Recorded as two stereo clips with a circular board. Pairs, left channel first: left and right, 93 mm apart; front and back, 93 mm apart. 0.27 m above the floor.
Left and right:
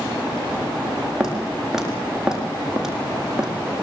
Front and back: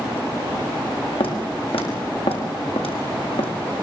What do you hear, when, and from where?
1.2 s footsteps: 5° right, 8 m